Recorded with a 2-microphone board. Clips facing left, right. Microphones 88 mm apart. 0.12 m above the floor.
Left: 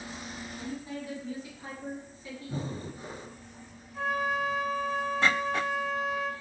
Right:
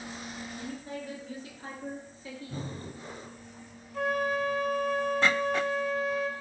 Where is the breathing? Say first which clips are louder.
Left 5 dB; 20° left (ahead or behind), 0.7 m.